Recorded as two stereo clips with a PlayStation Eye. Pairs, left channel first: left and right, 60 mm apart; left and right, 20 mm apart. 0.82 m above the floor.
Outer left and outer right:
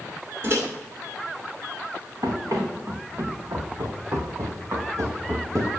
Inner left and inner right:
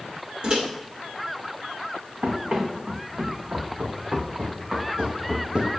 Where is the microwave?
45° right (ahead or behind), 2.5 m.